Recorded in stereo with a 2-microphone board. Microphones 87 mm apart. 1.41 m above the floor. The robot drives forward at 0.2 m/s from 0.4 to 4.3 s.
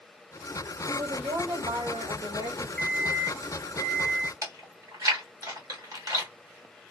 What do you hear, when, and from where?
0.9 s a woman speaking: 55° right (ahead or behind), 2.0 m; by 2.7 s 45° right (ahead or behind), 2 m
2.8 s an alarm clock: 10° left (ahead or behind), 0.6 m; by 4.3 s 5° left (ahead or behind), 0.8 m
4.4 s chewing: 45° right (ahead or behind), 1.4 m